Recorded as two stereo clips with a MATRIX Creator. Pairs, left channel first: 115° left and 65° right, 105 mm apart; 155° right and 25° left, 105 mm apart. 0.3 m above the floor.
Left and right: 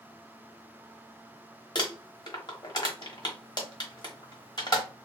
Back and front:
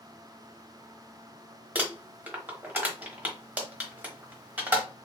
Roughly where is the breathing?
I don't hear breathing.